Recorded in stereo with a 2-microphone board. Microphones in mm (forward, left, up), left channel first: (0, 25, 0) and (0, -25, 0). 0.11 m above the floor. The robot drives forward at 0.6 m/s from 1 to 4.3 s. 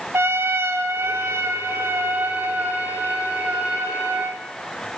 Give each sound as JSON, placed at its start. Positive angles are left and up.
{"t": 0.1, "sound": "a trumpet", "side_deg": -60, "distance_m": 0.7}